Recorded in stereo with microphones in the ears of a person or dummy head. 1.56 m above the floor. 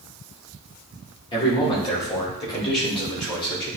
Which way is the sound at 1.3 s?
25° left (ahead or behind).